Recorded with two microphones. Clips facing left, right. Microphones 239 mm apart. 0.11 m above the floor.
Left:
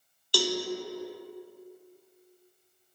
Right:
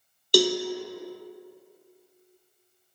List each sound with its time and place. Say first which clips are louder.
0.3 s a cowbell: right 8 dB; 45° right (ahead or behind), 0.6 m